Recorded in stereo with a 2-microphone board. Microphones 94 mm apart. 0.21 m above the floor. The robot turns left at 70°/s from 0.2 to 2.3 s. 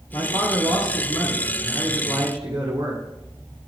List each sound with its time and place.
0.1 s a man speaking: 70° left, 2.5 m; by 3.0 s 80° right, 2.5 m